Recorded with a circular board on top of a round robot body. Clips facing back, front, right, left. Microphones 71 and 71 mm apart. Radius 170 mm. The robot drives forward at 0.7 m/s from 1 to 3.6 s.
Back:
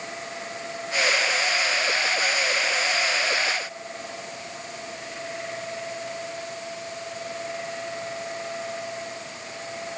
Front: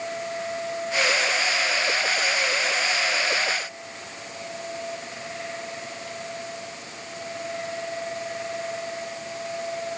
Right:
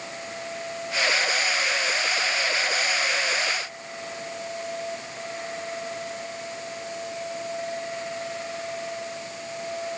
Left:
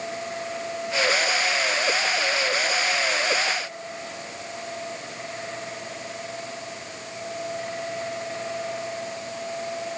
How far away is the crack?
I don't hear a crack.